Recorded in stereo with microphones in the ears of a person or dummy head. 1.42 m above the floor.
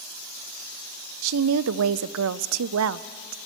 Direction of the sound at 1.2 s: 80° right.